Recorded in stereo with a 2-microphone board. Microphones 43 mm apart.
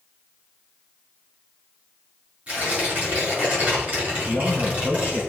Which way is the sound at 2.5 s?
40° right (ahead or behind).